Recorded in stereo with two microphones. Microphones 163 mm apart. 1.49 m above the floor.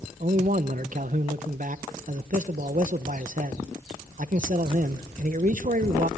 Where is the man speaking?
60° right (ahead or behind), 0.9 m.